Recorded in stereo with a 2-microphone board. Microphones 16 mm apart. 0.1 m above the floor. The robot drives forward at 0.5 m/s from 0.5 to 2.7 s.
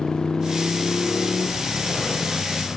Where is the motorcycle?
75° left (ahead or behind); by 2.8 s 70° left (ahead or behind).